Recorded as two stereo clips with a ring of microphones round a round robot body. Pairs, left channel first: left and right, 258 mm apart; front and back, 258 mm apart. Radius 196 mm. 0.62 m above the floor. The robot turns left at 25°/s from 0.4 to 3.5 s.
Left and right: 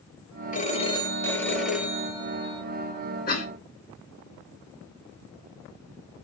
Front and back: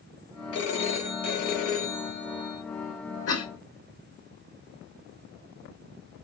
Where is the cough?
35° left, 2 m; by 3.5 s 30° left, 2 m.